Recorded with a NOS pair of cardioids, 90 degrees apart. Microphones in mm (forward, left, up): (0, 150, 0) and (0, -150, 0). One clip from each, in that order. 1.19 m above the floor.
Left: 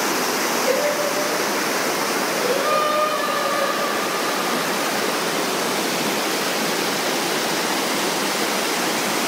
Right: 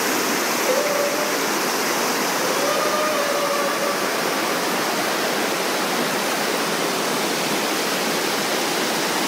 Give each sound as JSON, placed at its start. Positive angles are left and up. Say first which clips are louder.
{"t": 0.7, "sound": "singing", "louder": "right 1 dB", "azimuth_deg": 25, "distance_m": 0.9}